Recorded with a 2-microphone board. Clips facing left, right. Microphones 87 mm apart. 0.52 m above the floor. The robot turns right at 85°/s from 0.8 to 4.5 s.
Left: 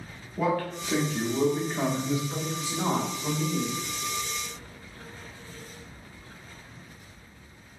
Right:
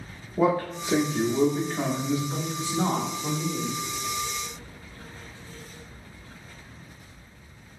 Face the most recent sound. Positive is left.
turn(degrees=85)